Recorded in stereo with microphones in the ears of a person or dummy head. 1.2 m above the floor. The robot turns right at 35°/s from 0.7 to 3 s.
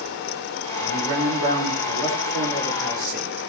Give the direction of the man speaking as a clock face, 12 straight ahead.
4 o'clock.